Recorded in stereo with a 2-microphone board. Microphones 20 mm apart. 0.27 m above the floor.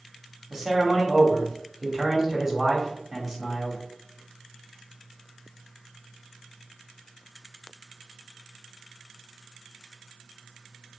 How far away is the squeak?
No squeak in this recording.